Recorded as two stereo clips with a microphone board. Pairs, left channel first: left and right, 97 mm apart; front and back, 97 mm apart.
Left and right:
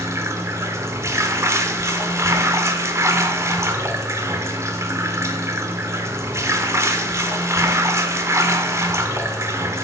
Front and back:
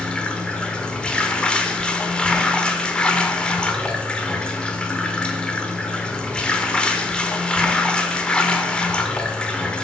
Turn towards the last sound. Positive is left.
turn(degrees=-70)